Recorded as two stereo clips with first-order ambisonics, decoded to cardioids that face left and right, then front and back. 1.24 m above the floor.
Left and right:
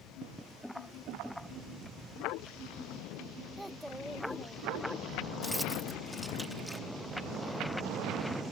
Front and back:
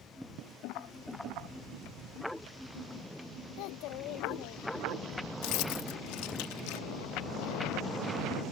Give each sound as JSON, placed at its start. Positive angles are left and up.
{"t": 3.6, "sound": "a child speaking", "azimuth_deg": -5}
{"t": 5.4, "sound": "keys jangling", "azimuth_deg": -5}